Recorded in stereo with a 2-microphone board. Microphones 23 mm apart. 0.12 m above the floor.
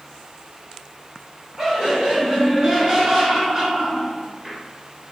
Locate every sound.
1.6 s laughter: 25° right (ahead or behind), 1.8 m; by 4.6 s 20° right (ahead or behind), 1.4 m